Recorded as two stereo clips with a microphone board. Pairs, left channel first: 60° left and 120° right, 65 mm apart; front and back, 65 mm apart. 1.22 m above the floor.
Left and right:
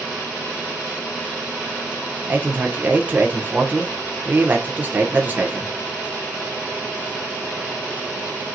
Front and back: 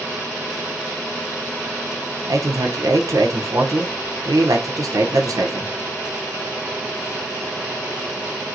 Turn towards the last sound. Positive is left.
turn(degrees=180)